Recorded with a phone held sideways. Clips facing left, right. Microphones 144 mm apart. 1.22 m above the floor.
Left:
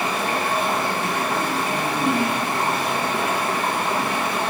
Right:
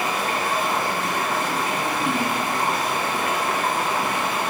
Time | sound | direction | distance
0.0 | running water | 25° left (ahead or behind) | 0.9 m